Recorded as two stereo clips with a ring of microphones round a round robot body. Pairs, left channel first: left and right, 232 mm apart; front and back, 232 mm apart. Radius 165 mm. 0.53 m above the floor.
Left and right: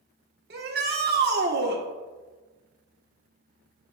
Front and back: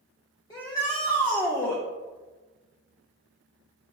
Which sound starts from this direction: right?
A shout, at 0.5 s.